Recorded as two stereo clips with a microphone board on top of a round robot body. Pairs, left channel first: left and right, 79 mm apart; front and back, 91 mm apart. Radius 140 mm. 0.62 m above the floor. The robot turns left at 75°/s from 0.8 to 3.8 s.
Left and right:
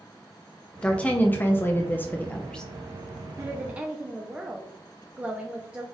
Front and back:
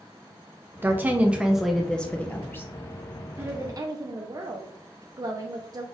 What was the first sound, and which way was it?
A woman speaking, 155° left.